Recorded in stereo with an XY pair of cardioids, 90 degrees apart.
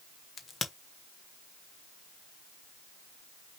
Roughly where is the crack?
Ahead left.